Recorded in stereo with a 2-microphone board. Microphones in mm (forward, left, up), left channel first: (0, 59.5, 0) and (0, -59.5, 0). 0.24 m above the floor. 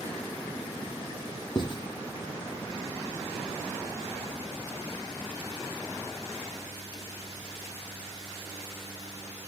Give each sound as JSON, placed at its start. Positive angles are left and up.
{"t": 1.6, "sound": "writing", "side_deg": 40, "distance_m": 1.6}